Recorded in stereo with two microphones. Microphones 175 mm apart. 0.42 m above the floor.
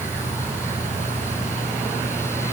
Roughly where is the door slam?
No door slam in this recording.